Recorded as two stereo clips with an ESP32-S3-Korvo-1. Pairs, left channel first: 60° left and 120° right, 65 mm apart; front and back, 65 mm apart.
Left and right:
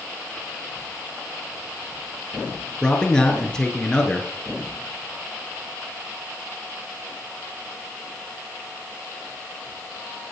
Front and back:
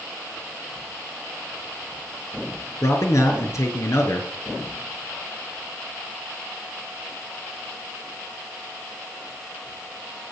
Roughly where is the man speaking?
Ahead.